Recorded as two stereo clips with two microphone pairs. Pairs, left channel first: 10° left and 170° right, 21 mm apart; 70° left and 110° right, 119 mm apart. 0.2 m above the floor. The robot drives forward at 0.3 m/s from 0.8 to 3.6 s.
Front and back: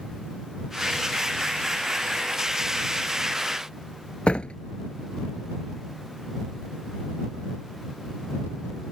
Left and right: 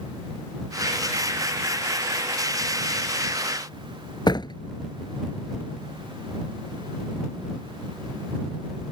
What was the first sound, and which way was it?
A door slam, 25° left.